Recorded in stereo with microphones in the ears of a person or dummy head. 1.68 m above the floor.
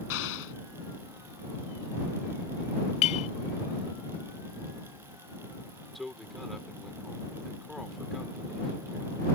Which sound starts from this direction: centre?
A man speaking, at 6.0 s.